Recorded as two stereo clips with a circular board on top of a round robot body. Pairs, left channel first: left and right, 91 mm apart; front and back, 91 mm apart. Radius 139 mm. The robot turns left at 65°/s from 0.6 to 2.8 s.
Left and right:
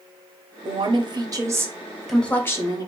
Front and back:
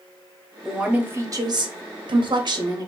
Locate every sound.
0.7 s a woman speaking: 90° right, 1.2 m; by 2.9 s 130° left, 1.2 m